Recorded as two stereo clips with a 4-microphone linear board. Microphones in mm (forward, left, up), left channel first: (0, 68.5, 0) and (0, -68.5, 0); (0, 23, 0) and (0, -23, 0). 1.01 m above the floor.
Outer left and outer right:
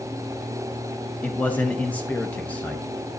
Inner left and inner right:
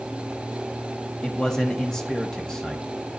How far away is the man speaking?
About 0.6 m.